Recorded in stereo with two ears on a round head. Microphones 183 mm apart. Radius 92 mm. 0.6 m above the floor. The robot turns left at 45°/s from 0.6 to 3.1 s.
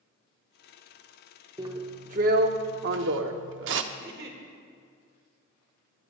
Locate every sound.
1.6 s a drill: 20° right, 0.7 m; by 3.8 s 90° right, 0.7 m
3.9 s a giggle: 50° right (ahead or behind), 1.5 m